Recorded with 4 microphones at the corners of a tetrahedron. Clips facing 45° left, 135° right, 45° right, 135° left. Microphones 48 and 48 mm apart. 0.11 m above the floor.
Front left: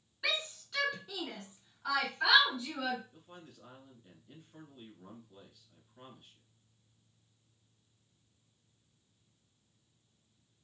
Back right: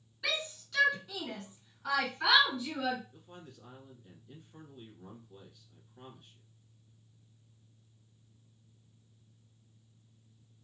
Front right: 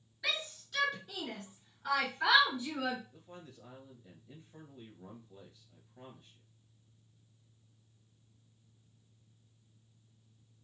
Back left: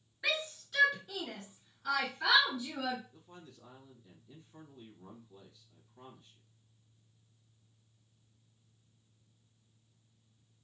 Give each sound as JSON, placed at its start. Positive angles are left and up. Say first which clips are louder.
{"t": 0.2, "sound": "a shout", "louder": "even, back left 2 dB", "azimuth_deg": 100, "distance_m": 1.8}
{"t": 3.1, "sound": "a man speaking", "louder": "back right 2 dB, front right 2 dB", "azimuth_deg": -35, "distance_m": 1.4}